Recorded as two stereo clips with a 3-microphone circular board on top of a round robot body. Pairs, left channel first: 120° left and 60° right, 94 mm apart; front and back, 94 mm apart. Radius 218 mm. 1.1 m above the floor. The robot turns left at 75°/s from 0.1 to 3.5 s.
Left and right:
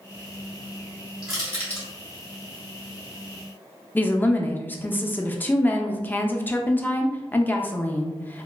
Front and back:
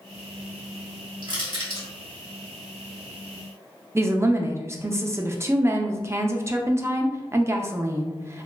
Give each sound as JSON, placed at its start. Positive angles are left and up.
{"t": 1.2, "sound": "crushing", "azimuth_deg": -135, "distance_m": 1.5}
{"t": 4.0, "sound": "a woman speaking", "azimuth_deg": 165, "distance_m": 0.6}